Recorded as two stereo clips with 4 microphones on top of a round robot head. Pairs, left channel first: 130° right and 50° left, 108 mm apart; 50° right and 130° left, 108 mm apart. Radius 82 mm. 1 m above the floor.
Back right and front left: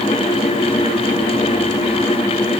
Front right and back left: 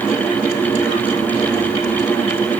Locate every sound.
Only background noise.